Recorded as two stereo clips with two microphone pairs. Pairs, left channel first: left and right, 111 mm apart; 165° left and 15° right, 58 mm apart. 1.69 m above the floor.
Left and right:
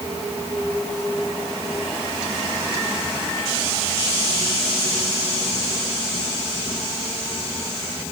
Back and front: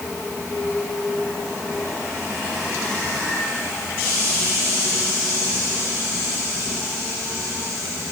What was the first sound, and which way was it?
Only background noise.